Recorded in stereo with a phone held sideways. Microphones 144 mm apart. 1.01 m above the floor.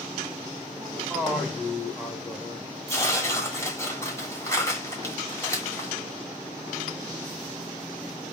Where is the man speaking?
10° left (ahead or behind), 2 m.